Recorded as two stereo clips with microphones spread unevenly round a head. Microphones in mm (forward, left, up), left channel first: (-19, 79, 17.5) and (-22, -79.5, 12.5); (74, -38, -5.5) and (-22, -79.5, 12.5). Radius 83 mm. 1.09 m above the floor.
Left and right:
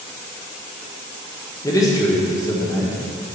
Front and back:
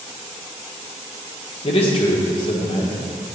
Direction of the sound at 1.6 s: 20° left.